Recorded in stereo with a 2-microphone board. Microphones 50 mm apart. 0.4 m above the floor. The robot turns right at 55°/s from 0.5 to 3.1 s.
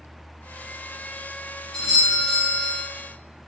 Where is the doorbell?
5° left (ahead or behind), 1.2 m; by 2.8 s 15° right (ahead or behind), 1.2 m.